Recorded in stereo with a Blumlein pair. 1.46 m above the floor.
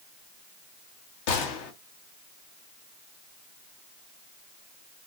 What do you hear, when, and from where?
1.3 s a gunshot: 50° left, 0.9 m